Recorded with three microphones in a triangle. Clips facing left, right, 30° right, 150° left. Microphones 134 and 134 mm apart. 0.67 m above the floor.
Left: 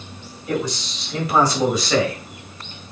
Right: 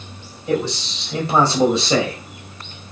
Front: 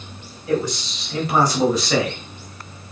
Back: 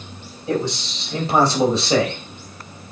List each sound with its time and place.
0.5 s a man speaking: 150° right, 4.5 m